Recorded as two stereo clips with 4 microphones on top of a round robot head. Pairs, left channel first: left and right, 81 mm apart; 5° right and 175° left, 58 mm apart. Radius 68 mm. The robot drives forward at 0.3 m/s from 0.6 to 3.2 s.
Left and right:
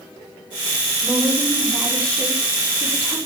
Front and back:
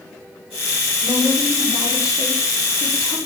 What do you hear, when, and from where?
1.0 s a woman speaking: 15° left, 6.5 m